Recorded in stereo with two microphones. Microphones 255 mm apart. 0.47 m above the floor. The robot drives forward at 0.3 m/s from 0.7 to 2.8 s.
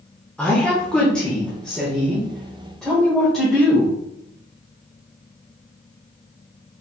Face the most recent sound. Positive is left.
turn(degrees=5)  # may be behind; listen again after turning